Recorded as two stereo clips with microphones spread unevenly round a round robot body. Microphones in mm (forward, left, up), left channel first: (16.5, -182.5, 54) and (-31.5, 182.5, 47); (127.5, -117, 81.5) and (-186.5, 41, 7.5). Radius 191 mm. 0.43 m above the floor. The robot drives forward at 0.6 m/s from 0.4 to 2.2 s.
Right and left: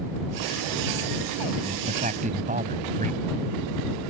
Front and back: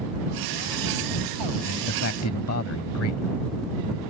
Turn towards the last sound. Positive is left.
turn(degrees=30)